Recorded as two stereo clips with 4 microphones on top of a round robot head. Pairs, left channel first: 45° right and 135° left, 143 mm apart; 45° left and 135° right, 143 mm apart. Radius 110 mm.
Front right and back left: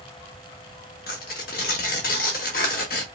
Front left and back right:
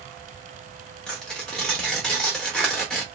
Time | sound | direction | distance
1.1 | tearing paper | 40° right | 0.5 m